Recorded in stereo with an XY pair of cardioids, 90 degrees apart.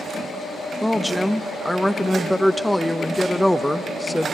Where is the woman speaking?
5° left, 0.8 m.